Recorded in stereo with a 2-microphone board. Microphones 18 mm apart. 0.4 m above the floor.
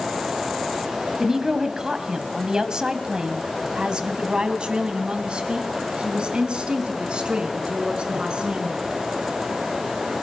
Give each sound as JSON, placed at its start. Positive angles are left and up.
{"t": 1.2, "sound": "a woman speaking", "side_deg": -20, "distance_m": 3.0}